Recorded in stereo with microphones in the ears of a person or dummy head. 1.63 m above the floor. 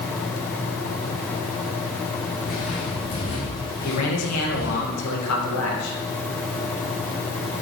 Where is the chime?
I don't hear a chime.